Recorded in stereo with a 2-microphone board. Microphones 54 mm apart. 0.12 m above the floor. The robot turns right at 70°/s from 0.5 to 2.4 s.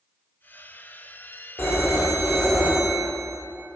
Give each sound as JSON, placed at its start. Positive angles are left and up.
{"t": 1.6, "sound": "a phone ringing", "azimuth_deg": 135, "distance_m": 1.5}